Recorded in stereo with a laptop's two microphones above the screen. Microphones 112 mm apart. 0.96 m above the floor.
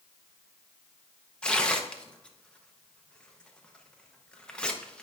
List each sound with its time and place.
1.4 s tearing paper: 10° left (ahead or behind), 0.7 m